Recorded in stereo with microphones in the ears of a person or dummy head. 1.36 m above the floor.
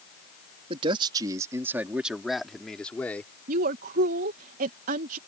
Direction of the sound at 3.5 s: 50° right (ahead or behind).